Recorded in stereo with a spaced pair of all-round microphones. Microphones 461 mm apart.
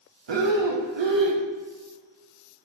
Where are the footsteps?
I don't hear footsteps.